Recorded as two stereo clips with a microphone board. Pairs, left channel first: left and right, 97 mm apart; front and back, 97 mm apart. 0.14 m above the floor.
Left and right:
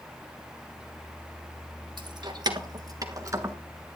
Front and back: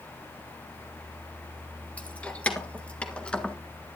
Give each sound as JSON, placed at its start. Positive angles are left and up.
{"t": 2.0, "sound": "keys jangling", "azimuth_deg": -75, "distance_m": 2.0}